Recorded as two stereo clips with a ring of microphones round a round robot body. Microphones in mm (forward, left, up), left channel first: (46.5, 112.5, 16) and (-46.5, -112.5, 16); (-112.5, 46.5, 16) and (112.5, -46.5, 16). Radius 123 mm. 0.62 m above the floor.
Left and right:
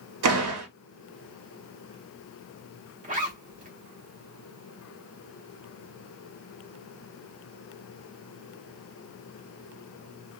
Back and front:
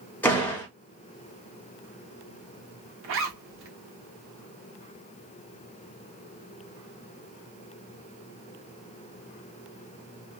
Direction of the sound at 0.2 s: 120° right.